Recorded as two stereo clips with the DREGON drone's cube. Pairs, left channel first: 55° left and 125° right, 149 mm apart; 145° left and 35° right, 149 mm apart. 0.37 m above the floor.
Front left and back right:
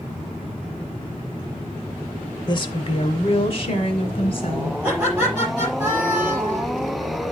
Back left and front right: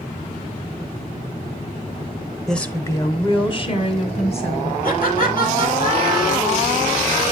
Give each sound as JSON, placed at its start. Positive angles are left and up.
{"t": 2.5, "sound": "a woman speaking", "azimuth_deg": 60, "distance_m": 0.9}
{"t": 4.8, "sound": "laughter", "azimuth_deg": 155, "distance_m": 7.5}